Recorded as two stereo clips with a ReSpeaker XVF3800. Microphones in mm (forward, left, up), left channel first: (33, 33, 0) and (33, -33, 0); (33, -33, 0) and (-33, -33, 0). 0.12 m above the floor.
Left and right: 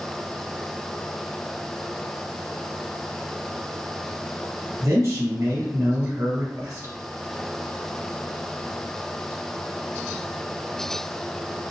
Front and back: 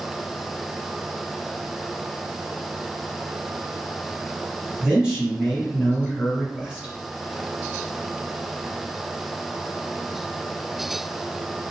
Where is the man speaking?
100° right, 1.9 m.